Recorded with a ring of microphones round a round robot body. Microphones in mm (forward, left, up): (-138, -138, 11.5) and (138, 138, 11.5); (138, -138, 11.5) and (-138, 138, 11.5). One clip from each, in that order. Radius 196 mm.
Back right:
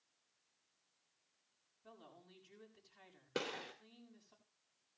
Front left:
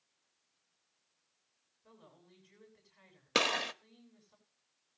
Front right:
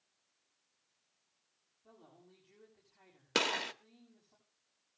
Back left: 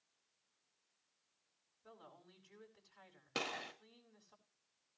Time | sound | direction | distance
1.8 | a woman speaking | 170° left | 7.5 m
3.4 | a gunshot | 15° left | 1.3 m